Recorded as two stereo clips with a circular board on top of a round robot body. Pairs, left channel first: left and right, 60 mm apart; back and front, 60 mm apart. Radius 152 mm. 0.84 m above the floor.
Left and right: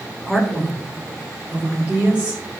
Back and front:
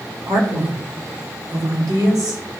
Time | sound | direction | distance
0.2 | a man speaking | 5° left | 2 m